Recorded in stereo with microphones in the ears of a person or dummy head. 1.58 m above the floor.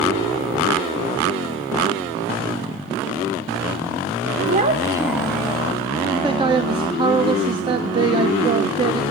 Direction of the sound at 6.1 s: 30° right (ahead or behind).